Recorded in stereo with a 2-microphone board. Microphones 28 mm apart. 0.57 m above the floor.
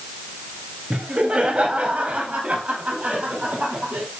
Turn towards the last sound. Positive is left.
turn(degrees=-60)  # may be behind; listen again after turning